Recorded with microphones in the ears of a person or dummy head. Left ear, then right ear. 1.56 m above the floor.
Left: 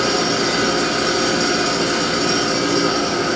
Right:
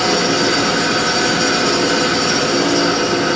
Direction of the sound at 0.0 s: 50° right (ahead or behind).